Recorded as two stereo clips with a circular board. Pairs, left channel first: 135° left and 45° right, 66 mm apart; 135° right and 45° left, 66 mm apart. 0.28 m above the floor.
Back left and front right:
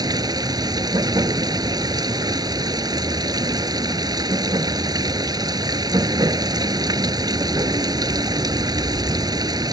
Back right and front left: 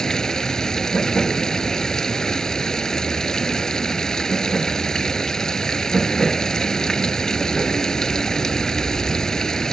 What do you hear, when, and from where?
0.0 s running water: 55° right